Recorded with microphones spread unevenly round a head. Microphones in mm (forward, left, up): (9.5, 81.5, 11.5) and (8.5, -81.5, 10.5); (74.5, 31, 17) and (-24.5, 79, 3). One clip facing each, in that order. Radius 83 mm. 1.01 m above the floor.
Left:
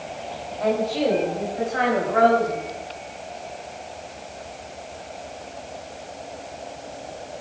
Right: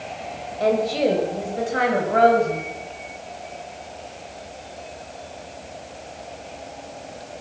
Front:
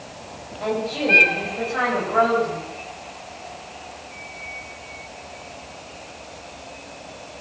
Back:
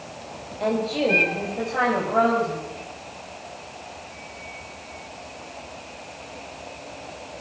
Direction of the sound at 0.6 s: 145° right.